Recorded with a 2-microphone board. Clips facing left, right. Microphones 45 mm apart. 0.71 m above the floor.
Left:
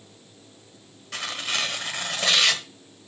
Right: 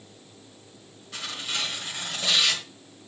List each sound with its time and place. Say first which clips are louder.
1.1 s tearing paper: left 4 dB; 80° left, 1.4 m